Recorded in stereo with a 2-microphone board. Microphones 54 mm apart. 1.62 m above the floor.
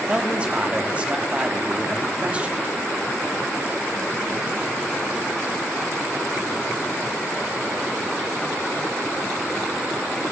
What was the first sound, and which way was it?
A man speaking, 20° right (ahead or behind).